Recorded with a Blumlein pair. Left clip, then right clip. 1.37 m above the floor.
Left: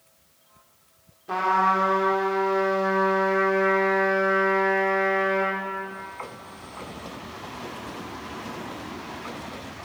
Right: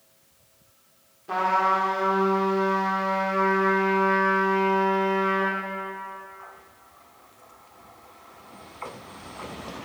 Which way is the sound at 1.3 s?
5° left.